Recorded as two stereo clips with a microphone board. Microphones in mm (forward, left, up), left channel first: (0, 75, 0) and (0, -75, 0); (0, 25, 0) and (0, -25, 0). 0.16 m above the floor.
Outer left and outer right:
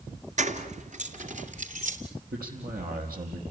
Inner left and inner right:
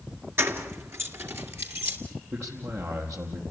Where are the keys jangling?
55° right (ahead or behind), 2 m.